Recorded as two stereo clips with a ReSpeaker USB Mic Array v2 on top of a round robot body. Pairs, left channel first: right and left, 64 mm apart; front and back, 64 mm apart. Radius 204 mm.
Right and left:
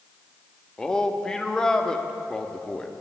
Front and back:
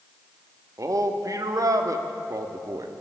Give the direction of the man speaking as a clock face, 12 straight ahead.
6 o'clock.